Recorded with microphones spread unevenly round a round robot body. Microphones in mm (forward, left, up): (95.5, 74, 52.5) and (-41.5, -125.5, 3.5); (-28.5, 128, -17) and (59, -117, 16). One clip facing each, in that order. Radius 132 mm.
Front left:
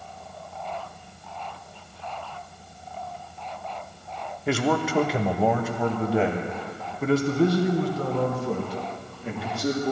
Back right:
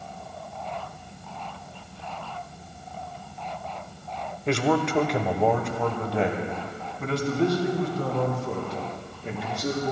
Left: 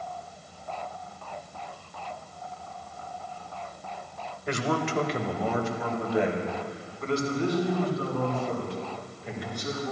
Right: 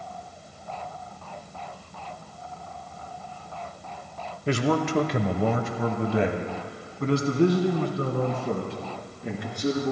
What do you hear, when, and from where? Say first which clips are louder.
4.5 s a man speaking: back right 1 dB, right 5 dB; 55° right, 0.9 m; by 9.9 s 35° right, 4.5 m